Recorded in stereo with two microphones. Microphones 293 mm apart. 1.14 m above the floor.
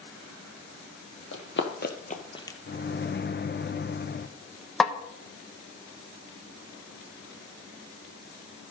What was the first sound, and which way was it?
Running footsteps, 50° left (ahead or behind).